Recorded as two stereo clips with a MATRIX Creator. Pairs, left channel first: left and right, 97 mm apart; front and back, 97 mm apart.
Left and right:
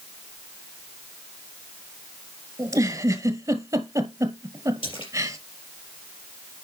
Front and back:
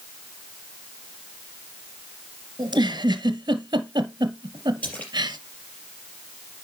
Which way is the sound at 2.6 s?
140° right.